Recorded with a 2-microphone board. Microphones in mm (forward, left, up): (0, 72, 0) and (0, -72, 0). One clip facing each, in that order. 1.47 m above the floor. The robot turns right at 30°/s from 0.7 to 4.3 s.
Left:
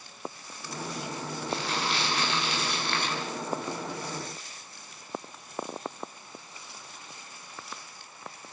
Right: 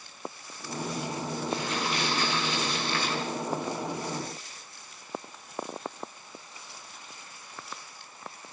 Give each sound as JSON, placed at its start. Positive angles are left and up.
{"t": 1.5, "sound": "crumpling", "azimuth_deg": 75, "distance_m": 8.0}